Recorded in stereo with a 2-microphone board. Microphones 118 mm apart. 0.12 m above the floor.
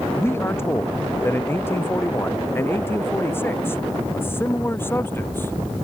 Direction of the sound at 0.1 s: 20° left (ahead or behind).